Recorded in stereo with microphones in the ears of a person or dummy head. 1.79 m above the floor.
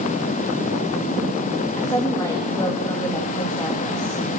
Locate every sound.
1.8 s a woman speaking: 25° left (ahead or behind), 3.5 m